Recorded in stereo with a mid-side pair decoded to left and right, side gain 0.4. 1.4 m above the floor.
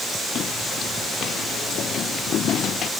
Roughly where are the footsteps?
Left.